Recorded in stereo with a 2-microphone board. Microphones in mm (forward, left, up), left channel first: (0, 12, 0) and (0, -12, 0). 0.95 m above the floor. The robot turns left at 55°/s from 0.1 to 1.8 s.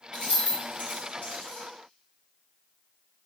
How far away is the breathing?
No breathing in this recording.